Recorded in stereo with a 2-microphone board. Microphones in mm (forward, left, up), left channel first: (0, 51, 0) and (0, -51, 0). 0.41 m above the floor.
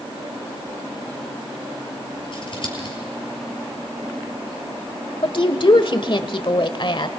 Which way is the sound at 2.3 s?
55° left (ahead or behind).